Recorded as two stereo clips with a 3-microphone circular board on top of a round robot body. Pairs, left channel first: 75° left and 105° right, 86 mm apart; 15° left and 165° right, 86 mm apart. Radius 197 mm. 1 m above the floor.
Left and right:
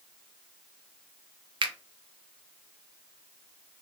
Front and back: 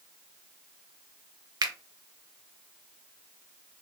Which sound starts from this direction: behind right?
A finger snap, at 1.6 s.